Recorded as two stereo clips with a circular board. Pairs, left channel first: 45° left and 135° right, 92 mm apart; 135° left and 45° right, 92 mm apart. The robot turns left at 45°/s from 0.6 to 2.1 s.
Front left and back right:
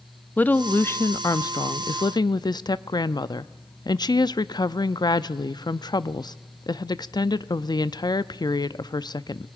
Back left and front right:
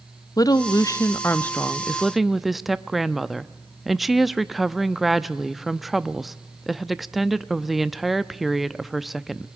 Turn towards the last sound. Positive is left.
turn(degrees=40)